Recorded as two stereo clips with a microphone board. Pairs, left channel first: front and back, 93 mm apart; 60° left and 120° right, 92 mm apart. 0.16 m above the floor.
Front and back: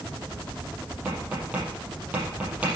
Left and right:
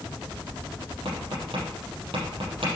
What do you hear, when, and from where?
1.1 s tapping: 105° right, 5.5 m